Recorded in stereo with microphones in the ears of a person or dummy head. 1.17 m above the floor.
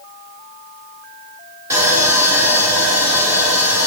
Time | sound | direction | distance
1.7 | sawing | 15° right (ahead or behind) | 1.2 m